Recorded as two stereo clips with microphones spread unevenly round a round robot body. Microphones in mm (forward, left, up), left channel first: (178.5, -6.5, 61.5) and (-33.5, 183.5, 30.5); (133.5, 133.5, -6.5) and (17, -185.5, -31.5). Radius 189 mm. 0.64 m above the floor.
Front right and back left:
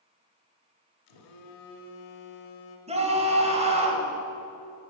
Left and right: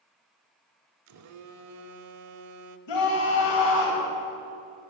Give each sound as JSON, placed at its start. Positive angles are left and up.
{"t": 1.1, "sound": "a phone buzzing", "azimuth_deg": -65, "distance_m": 0.8}
{"t": 2.9, "sound": "a scream", "azimuth_deg": 70, "distance_m": 3.0}